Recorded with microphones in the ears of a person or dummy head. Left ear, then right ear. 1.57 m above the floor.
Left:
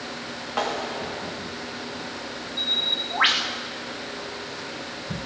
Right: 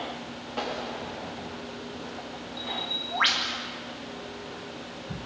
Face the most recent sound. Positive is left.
turn(degrees=15)  # may be behind; listen again after turning